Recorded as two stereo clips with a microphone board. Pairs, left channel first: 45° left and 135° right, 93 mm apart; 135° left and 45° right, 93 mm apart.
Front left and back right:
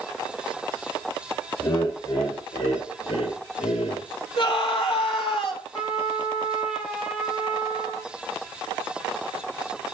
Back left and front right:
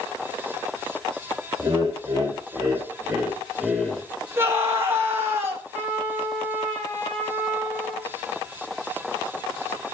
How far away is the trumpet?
About 7 m.